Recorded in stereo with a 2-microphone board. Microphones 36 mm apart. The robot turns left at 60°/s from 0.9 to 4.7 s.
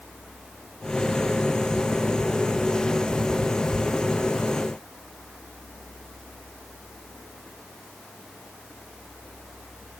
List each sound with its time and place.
Only background noise.